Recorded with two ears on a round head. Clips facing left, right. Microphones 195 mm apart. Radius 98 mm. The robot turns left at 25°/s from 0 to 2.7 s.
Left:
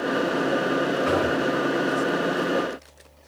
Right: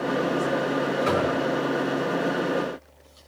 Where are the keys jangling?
No keys jangling in this recording.